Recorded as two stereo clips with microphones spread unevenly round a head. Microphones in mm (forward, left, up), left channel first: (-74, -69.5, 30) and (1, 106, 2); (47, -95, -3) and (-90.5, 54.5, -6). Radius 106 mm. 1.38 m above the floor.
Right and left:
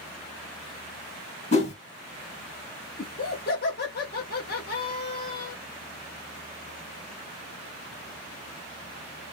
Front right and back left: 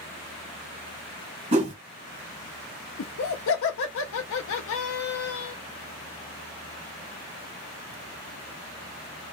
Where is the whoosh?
170° right, 1.5 m.